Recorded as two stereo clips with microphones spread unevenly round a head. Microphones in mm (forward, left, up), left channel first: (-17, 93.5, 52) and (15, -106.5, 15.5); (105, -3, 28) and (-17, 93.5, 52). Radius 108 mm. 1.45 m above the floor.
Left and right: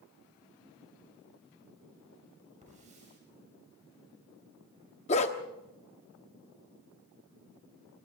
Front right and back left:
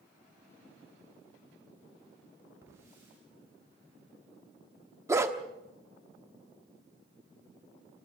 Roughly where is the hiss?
Behind right.